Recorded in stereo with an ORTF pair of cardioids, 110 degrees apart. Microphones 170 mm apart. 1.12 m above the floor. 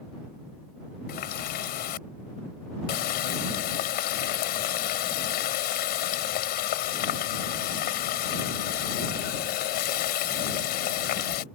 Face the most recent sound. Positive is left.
turn(degrees=70)